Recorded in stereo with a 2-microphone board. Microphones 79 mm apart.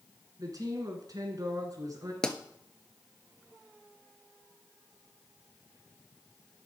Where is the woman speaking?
50° right (ahead or behind), 2 m.